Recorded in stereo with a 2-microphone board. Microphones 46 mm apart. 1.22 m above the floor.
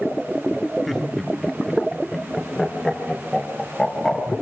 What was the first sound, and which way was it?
Laughter, 5° left (ahead or behind).